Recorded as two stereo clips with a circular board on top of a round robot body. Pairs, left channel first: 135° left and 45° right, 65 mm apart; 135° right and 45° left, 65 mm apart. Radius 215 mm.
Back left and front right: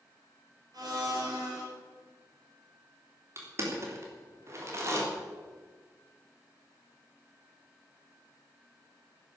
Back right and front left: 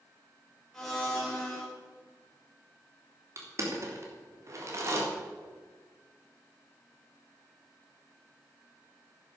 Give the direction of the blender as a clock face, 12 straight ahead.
2 o'clock.